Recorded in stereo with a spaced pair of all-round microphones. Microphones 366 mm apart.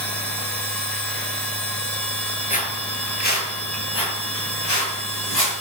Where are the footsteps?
20° left (ahead or behind), 1.7 m; by 5.5 s 70° left (ahead or behind), 5.5 m.